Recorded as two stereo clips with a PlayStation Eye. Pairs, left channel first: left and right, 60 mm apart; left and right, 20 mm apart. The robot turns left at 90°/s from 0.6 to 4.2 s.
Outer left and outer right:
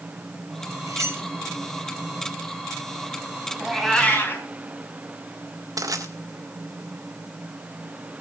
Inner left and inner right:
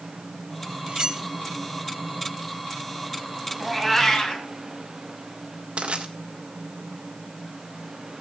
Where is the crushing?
80° right, 2.5 m.